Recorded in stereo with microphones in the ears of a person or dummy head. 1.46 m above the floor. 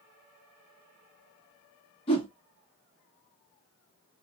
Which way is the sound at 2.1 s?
30° left (ahead or behind).